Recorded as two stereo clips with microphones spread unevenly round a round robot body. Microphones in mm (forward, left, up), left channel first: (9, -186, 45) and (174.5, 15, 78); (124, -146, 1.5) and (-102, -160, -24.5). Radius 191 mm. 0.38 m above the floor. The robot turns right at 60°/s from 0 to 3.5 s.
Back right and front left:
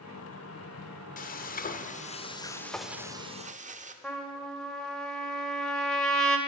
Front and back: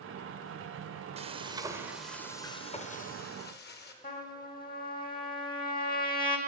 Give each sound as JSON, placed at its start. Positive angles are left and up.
{"t": 1.2, "sound": "frying", "azimuth_deg": -145, "distance_m": 1.0}
{"t": 4.0, "sound": "a trumpet", "azimuth_deg": -45, "distance_m": 1.8}